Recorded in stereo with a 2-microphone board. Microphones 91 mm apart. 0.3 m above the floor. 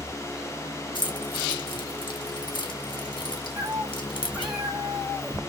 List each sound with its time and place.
0.9 s keys jangling: 60° left (ahead or behind), 1.7 m
3.6 s a cat meowing: centre (ahead or behind), 1.2 m